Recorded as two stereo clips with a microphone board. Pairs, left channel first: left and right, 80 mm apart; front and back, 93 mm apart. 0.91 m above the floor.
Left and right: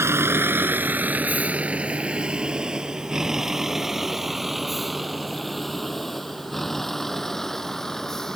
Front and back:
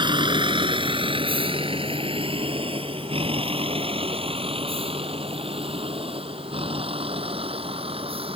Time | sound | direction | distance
0.0 | a vehicle | 150° right | ?